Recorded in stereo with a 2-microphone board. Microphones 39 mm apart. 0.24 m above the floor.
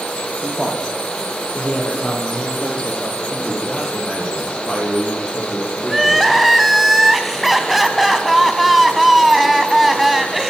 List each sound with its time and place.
0.4 s a man speaking: 15° left (ahead or behind), 8.5 m; by 3.2 s 30° left (ahead or behind), 6 m
3.3 s a man speaking: 25° left (ahead or behind), 8.5 m
5.9 s crying: 5° right (ahead or behind), 2 m